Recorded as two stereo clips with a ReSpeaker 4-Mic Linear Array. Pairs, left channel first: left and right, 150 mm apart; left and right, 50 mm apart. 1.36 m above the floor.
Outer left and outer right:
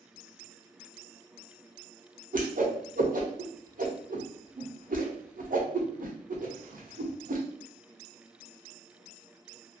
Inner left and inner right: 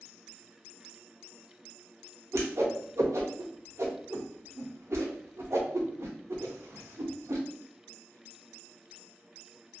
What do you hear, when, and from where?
2.3 s a whoosh: 65° right (ahead or behind), 0.6 m